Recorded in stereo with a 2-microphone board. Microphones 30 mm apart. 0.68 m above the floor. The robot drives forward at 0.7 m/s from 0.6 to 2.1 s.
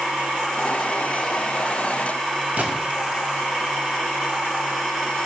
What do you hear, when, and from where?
2.6 s a gunshot: 65° right (ahead or behind), 1.8 m